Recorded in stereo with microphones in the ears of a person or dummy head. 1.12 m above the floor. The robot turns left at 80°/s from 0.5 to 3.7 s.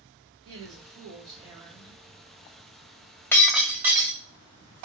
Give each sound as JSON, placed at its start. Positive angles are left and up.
{"t": 0.5, "sound": "a woman speaking", "azimuth_deg": -75, "distance_m": 1.6}
{"t": 3.3, "sound": "breaking glass", "azimuth_deg": 15, "distance_m": 1.5}